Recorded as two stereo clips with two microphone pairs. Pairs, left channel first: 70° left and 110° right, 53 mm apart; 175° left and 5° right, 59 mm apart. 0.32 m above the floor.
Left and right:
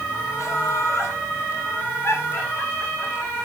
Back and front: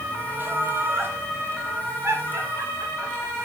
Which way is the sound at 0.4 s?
50° left.